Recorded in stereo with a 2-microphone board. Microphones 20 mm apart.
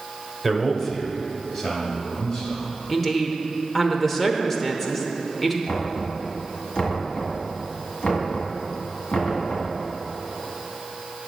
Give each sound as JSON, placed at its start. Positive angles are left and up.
{"t": 0.4, "sound": "a man speaking", "side_deg": 5, "distance_m": 1.1}
{"t": 2.9, "sound": "a woman speaking", "side_deg": 10, "distance_m": 0.8}
{"t": 5.7, "sound": "knocking", "side_deg": 65, "distance_m": 2.0}